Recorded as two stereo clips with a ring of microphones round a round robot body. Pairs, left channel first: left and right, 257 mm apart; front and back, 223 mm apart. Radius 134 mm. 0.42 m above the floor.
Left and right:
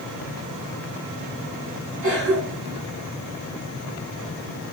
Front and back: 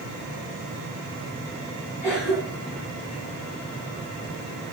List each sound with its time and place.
2.0 s a cough: 50° right, 4.5 m